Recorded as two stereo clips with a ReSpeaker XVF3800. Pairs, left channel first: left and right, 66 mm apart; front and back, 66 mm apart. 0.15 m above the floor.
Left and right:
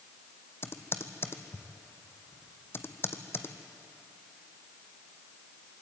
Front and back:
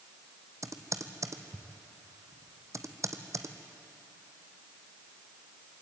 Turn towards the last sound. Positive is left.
turn(degrees=145)